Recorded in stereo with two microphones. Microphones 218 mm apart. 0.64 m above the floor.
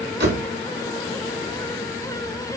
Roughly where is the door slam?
Right.